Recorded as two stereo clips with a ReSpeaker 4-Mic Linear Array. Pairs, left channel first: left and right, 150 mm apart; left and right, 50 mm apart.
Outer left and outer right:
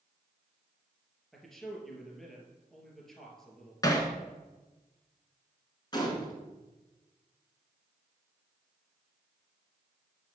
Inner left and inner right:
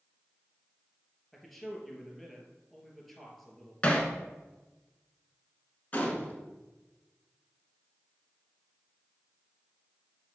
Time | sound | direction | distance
1.3 | a man speaking | centre (ahead or behind) | 2.5 m
3.8 | hammering | 25° left (ahead or behind) | 1.5 m
5.9 | a gunshot | 30° left (ahead or behind) | 1.8 m